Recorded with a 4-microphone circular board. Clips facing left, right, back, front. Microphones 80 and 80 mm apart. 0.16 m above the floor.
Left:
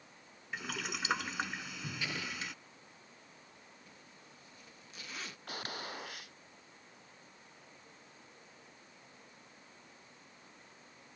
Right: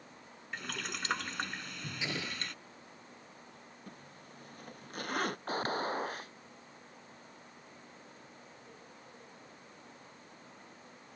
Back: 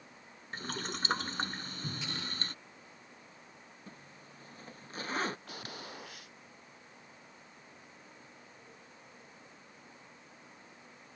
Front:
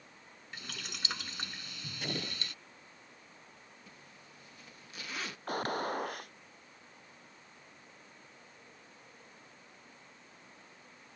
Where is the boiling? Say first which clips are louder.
Left 1 dB, back 7 dB; 175° left.